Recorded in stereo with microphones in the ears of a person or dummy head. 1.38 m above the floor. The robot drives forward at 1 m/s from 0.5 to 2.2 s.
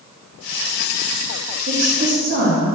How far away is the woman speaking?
About 2.5 m.